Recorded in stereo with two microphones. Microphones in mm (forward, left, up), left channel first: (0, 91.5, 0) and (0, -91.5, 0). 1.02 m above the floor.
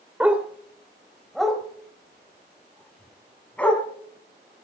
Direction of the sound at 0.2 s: 5° right (ahead or behind).